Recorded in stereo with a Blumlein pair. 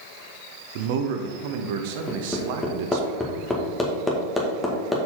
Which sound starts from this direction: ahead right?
A man speaking, at 0.8 s.